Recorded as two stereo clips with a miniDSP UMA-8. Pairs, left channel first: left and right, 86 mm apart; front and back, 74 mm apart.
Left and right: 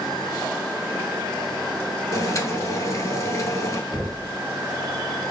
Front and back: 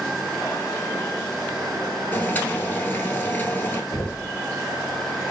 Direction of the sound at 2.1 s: 55° left.